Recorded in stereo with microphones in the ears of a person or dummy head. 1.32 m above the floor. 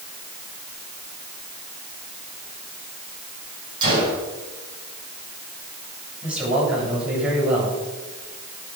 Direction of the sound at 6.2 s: 5° right (ahead or behind).